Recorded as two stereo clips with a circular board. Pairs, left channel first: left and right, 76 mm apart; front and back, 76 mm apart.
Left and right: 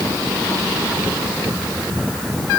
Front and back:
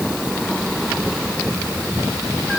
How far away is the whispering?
No whispering in this recording.